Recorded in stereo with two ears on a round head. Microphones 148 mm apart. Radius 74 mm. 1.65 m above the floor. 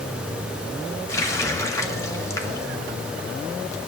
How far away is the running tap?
About 1.7 m.